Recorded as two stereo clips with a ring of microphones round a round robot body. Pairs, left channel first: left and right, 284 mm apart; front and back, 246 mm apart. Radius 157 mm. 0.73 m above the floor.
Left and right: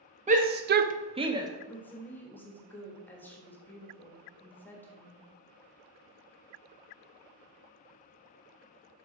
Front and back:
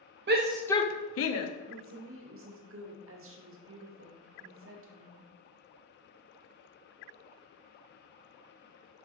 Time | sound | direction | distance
0.3 | a shout | 150° right | 0.6 m
1.7 | a woman speaking | 170° left | 1.2 m